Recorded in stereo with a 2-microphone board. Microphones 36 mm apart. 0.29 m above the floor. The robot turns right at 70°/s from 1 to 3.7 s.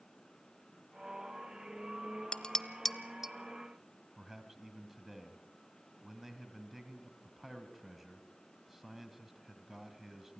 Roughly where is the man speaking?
Centre.